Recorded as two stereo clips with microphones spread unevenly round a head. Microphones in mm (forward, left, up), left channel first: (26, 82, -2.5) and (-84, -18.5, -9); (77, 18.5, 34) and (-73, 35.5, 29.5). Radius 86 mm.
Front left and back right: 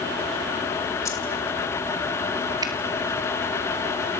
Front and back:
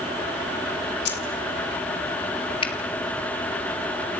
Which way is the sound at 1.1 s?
35° right.